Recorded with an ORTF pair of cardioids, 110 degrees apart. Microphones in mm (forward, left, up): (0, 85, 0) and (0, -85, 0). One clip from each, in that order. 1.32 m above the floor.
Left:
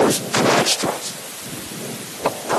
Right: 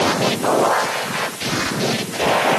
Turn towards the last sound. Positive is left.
No sound to turn to.